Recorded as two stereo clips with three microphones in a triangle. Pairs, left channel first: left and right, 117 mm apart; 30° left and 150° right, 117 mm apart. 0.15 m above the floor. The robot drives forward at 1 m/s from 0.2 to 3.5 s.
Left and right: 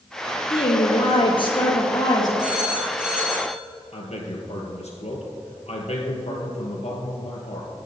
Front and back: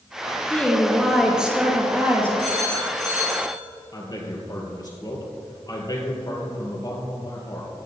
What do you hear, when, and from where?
0.5 s a woman speaking: 105° left, 2 m; by 2.3 s 140° left, 3 m
2.4 s a phone ringing: 170° right, 3 m; by 3.6 s 175° right, 4 m
3.9 s a man speaking: 80° left, 2.5 m